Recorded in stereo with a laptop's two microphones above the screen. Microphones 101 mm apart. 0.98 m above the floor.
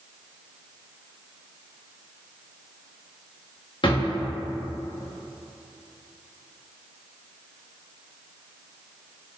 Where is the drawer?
55° left (ahead or behind), 0.7 m.